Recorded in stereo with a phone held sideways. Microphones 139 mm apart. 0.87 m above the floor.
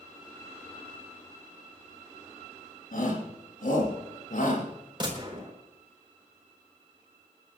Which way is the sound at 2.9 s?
85° left.